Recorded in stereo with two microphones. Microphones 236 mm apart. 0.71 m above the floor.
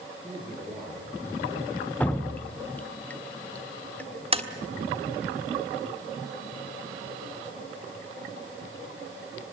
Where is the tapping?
25° right (ahead or behind), 1.5 m.